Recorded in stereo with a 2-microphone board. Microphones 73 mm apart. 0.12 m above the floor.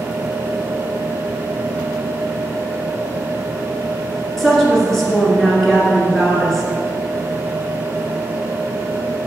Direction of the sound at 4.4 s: 5° left (ahead or behind).